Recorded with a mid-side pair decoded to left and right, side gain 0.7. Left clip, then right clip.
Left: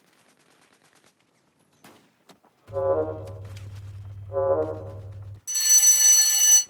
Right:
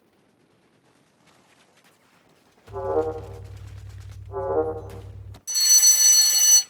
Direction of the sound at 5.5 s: 5° right.